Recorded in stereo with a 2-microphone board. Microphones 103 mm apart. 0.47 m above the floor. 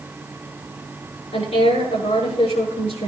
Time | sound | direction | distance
1.3 | a woman speaking | 70° left (ahead or behind) | 8 m